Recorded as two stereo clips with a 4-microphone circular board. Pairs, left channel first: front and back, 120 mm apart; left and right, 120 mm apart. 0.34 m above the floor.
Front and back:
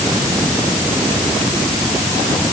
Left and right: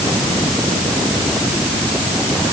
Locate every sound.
Only background noise.